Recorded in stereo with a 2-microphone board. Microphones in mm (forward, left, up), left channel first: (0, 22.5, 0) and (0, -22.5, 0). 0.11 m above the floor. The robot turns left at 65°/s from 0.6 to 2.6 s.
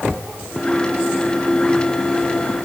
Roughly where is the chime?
I don't hear a chime.